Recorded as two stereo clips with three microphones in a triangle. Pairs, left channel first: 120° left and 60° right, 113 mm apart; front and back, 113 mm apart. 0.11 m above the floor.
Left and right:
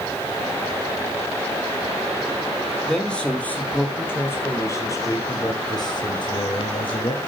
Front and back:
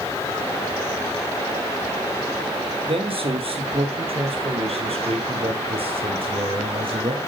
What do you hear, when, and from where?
2.9 s a man speaking: 155° right, 3 m; by 7.2 s 150° left, 3 m